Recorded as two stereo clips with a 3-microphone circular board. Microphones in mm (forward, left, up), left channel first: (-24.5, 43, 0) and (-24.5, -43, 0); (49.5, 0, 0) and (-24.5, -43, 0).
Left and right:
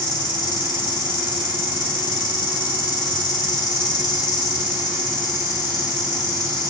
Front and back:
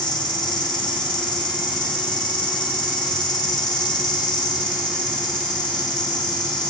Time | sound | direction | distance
0.0 | an insect | 60° left | 2.5 m